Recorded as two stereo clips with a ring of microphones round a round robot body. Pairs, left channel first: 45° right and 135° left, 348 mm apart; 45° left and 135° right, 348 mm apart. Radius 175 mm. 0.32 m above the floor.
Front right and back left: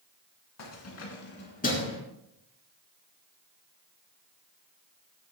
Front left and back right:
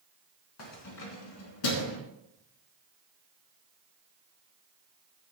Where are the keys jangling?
Straight ahead, 3 m; by 2.0 s 30° left, 3.5 m.